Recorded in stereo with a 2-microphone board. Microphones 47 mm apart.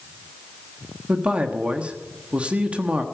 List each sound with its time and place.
1.1 s a man speaking: 30° right (ahead or behind), 1.3 m